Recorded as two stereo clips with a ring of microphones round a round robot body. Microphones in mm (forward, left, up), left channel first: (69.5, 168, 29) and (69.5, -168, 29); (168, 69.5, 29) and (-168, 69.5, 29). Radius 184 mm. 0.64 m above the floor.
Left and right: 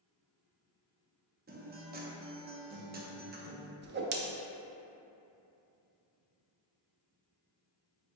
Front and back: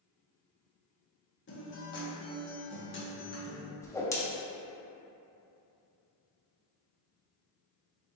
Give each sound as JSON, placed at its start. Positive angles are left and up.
{"t": 1.5, "sound": "a guitar", "azimuth_deg": -40, "distance_m": 0.8}
{"t": 3.8, "sound": "a whoosh", "azimuth_deg": -75, "distance_m": 0.6}